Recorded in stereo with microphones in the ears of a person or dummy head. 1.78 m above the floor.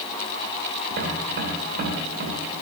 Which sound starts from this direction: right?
Tapping, at 0.9 s.